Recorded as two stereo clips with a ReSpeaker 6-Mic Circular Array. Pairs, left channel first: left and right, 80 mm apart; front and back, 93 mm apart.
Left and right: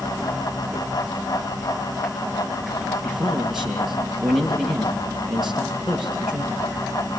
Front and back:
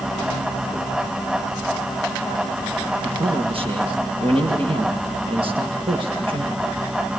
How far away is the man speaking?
About 10 m.